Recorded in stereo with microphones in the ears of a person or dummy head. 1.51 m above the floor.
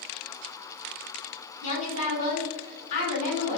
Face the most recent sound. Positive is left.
turn(degrees=50)  # may be behind; listen again after turning